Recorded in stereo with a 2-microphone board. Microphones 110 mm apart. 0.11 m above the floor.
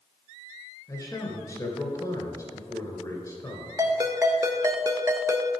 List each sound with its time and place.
0.9 s a man speaking: 30° left (ahead or behind), 1.6 m
3.8 s a ringtone: 30° right (ahead or behind), 0.8 m